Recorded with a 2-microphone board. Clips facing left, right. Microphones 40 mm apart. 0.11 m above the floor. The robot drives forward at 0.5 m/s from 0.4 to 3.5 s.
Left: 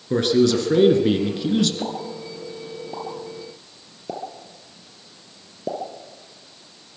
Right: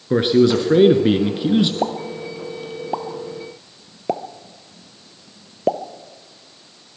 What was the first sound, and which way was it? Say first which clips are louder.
A man speaking: right 3 dB; 20° right (ahead or behind).